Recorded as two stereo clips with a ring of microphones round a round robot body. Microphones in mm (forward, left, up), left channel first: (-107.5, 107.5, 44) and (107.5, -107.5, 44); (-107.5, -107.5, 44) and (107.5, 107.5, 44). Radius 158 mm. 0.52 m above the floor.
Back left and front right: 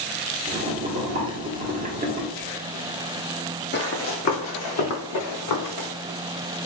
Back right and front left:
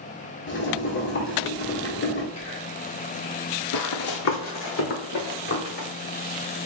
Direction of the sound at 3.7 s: 170° right.